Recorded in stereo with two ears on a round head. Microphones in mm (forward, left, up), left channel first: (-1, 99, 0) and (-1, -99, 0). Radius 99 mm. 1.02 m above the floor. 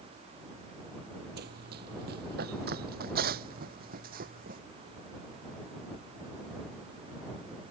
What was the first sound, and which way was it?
Running footsteps, 50° right (ahead or behind).